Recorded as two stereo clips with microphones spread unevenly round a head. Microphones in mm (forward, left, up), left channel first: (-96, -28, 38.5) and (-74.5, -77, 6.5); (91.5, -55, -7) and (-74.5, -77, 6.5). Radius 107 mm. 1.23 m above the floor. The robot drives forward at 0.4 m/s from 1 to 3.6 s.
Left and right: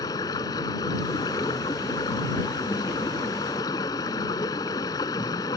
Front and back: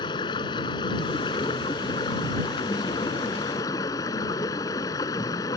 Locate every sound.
0.0 s running water: 80° left; by 5.6 s 85° left